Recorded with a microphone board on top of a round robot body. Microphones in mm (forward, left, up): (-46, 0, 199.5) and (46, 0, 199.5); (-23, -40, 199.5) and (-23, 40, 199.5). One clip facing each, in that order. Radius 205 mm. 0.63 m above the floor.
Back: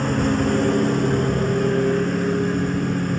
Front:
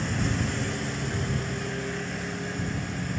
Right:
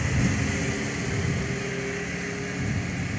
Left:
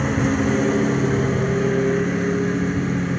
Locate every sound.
0.0 s a lawn mower: 140° left